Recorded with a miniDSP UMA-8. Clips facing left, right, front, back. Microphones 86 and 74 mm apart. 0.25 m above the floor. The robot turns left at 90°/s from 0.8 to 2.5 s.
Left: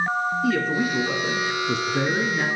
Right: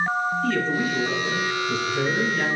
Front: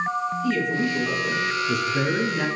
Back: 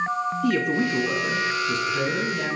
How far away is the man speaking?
About 3 m.